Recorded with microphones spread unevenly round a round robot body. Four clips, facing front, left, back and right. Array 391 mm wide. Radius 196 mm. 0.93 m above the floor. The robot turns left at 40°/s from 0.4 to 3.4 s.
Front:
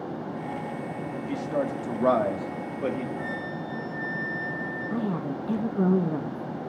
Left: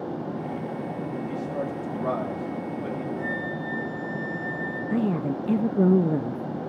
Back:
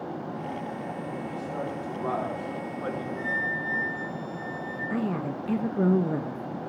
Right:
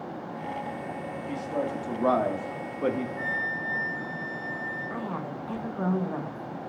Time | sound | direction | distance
1.3 | a man speaking | straight ahead | 2 m
3.2 | a flute | 125° left | 8.5 m
4.9 | a woman speaking | 85° left | 0.6 m